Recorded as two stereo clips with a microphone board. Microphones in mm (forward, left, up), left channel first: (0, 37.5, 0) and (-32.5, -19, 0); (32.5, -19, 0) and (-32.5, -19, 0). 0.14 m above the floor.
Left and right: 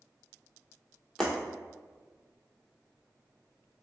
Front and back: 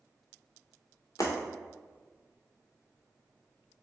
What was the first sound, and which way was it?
Breaking glass, 20° right.